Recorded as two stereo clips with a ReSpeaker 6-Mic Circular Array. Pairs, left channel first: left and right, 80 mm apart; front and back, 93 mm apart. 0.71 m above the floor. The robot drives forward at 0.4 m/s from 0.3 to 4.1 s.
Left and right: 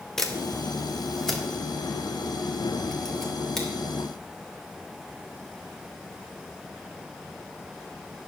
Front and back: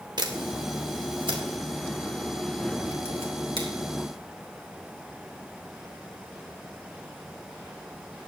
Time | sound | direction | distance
0.2 | a camera shutter | 175° left | 1.5 m